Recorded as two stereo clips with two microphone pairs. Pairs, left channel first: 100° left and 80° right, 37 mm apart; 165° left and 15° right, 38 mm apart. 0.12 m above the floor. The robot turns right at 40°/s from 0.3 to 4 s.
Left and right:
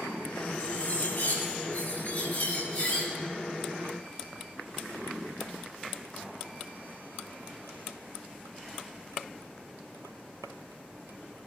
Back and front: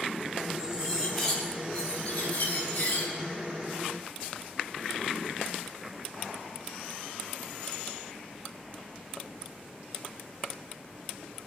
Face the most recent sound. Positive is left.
turn(degrees=-175)